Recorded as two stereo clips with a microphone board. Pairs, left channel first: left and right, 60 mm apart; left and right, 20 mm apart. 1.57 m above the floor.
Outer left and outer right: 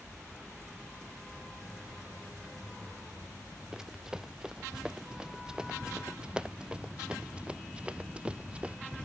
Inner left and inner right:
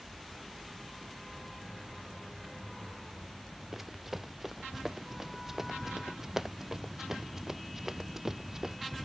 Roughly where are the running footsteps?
Centre.